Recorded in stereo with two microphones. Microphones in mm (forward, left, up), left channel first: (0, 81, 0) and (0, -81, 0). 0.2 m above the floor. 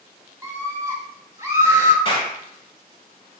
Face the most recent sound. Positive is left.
turn(degrees=30)  # may be behind; listen again after turning